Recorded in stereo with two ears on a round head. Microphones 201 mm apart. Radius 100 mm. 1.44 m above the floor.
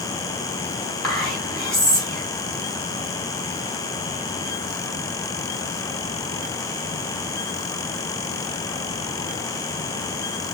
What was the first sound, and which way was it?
Whispering, 5° left (ahead or behind).